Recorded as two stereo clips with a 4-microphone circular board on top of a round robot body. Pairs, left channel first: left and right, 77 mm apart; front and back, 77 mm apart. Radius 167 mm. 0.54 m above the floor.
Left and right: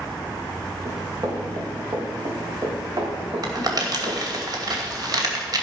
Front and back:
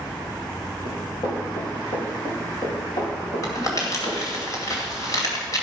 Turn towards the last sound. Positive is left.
turn(degrees=-50)